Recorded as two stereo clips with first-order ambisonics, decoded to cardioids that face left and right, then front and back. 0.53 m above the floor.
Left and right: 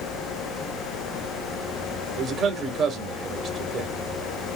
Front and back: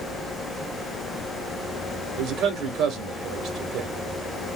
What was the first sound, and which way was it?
A man speaking, 145° right.